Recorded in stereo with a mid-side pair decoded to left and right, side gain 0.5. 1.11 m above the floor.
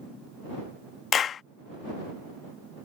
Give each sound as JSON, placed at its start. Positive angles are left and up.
{"t": 1.1, "sound": "a clap", "azimuth_deg": 50}